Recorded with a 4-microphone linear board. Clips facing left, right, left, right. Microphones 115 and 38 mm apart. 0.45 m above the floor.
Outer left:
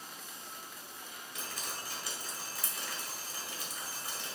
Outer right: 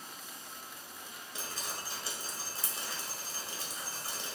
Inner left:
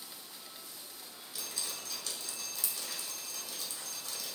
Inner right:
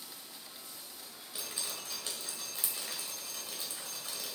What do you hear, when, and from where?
1.4 s dripping: 30° right (ahead or behind), 1.9 m